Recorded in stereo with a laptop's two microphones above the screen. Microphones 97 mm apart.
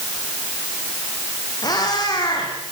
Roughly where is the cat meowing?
Left.